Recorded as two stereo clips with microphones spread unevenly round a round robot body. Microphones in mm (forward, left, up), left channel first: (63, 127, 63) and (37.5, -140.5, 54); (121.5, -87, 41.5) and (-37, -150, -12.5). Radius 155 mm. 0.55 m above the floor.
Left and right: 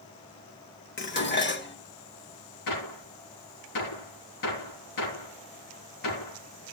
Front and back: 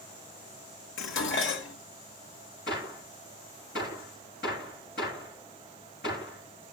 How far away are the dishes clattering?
About 1.4 m.